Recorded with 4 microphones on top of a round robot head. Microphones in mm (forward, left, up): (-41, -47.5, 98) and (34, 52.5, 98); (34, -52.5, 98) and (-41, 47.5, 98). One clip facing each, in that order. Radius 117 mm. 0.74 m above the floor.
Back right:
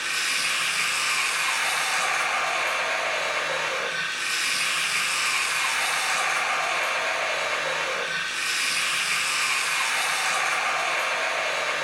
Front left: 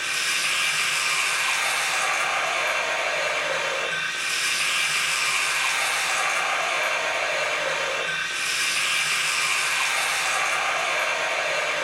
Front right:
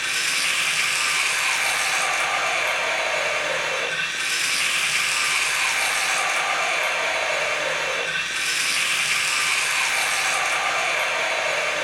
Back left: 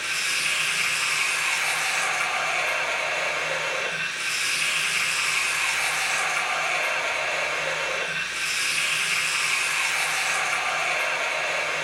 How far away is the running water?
About 1.6 m.